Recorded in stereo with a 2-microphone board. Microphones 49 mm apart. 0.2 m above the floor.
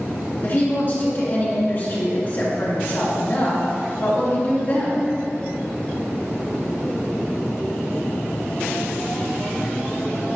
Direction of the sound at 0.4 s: 40° left (ahead or behind).